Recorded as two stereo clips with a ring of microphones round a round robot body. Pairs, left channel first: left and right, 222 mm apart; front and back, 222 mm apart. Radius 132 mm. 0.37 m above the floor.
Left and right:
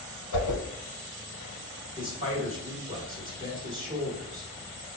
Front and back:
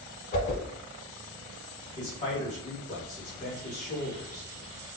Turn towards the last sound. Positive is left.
turn(degrees=-35)